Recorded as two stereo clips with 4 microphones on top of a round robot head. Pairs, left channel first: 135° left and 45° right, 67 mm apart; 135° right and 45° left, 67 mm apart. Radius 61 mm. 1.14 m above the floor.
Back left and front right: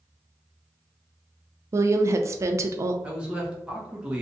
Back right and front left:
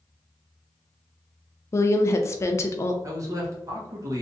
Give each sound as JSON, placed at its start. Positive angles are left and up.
{"t": 1.7, "sound": "a woman speaking", "azimuth_deg": -90, "distance_m": 0.5}
{"t": 3.0, "sound": "a man speaking", "azimuth_deg": 25, "distance_m": 1.2}